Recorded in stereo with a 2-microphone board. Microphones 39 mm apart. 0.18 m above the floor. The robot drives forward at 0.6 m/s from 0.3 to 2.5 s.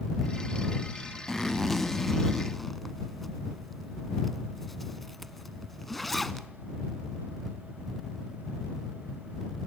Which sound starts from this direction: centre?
A zipper, at 1.3 s.